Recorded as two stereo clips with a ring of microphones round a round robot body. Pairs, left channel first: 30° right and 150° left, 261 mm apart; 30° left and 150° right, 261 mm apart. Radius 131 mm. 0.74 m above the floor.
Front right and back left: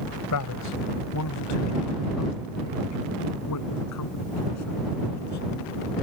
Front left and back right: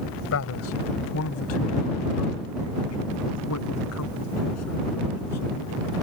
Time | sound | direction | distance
0.3 | a man speaking | 5° right | ?